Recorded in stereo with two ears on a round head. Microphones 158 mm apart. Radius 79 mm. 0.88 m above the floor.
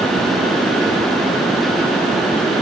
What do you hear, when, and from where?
Only background noise.